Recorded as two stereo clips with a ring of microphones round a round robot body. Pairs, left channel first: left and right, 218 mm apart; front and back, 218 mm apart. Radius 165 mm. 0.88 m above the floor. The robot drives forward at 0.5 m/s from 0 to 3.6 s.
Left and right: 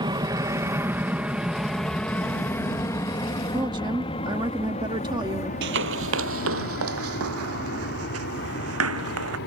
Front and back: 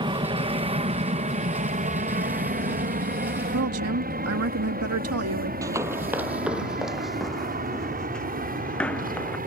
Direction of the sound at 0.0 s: 135° right.